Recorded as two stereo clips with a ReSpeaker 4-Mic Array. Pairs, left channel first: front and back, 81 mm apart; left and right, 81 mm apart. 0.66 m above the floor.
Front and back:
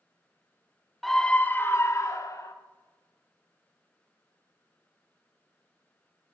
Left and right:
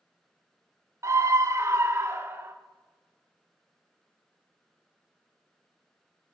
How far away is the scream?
About 0.6 m.